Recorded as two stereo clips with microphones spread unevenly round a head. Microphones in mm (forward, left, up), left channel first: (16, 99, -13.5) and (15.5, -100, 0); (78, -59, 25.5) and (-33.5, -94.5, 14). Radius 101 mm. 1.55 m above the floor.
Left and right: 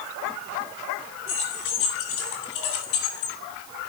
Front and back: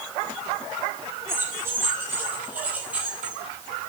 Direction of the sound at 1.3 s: 120° left.